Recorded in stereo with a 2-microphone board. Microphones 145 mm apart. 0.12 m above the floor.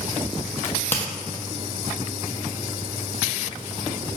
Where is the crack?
15° left (ahead or behind), 1.1 m.